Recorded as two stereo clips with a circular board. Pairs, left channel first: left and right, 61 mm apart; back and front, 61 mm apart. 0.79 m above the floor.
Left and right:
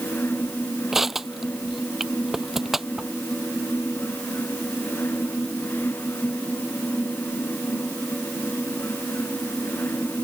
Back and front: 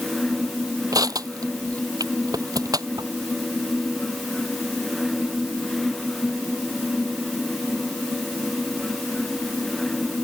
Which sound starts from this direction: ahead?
Crushing, at 0.9 s.